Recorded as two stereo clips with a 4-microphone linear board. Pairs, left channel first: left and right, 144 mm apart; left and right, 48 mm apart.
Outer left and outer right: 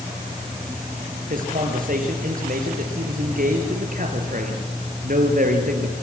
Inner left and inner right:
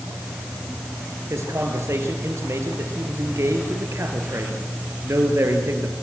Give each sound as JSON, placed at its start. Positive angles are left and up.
{"t": 1.3, "sound": "a man speaking", "side_deg": -65, "distance_m": 4.0}